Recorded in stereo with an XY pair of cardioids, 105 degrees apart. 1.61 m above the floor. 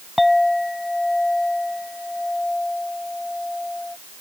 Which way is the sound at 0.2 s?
15° left.